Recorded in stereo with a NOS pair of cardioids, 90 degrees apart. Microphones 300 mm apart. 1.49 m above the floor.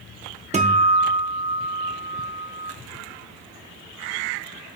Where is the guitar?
20° right, 0.9 m.